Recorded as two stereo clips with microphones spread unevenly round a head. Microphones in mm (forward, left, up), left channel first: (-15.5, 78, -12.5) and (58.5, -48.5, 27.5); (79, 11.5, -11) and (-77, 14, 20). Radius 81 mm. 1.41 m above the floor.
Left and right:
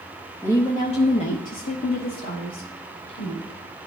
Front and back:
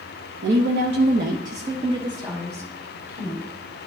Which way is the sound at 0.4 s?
170° right.